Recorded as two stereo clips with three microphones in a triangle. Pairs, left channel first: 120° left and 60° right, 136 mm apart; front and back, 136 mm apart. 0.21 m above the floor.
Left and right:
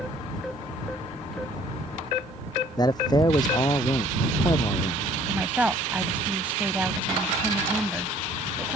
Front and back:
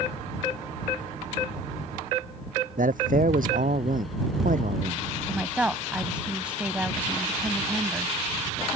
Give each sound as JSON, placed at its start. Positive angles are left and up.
{"t": 2.8, "sound": "a man speaking", "azimuth_deg": 180}
{"t": 5.3, "sound": "a woman speaking", "azimuth_deg": -115}